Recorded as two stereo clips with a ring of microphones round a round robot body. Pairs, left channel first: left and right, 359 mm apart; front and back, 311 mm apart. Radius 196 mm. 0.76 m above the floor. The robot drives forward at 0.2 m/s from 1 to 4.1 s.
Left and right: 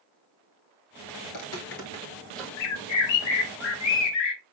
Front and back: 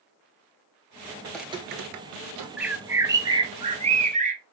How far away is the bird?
About 0.9 m.